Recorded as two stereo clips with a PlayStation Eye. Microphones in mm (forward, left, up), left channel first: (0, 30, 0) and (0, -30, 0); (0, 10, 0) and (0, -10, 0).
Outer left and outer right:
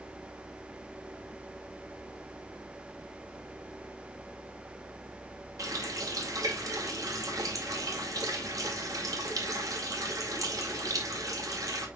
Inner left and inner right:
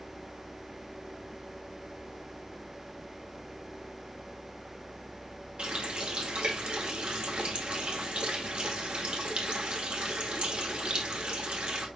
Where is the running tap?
70° right (ahead or behind), 2 m.